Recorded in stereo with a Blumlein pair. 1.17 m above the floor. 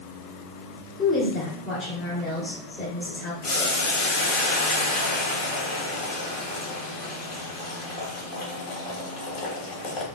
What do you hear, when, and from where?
1.0 s a woman speaking: 20° left, 2.5 m
3.4 s boiling: 45° left, 1.4 m